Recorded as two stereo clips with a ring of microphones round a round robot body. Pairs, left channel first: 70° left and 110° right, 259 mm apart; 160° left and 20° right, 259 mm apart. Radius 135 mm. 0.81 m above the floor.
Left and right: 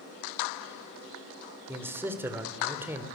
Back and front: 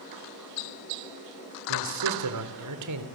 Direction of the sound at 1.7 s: 30° right.